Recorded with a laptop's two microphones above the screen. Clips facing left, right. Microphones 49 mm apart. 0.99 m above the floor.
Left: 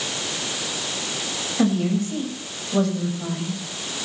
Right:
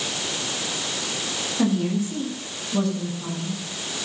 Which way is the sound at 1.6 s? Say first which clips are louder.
Left 2 dB; 45° left (ahead or behind).